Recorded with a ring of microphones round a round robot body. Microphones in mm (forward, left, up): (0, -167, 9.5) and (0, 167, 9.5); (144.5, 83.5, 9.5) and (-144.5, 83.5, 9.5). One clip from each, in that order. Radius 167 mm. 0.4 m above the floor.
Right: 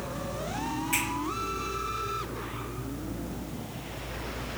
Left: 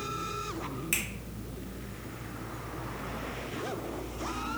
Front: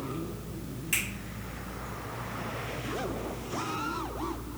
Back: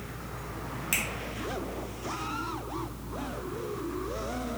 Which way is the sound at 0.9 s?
130° left.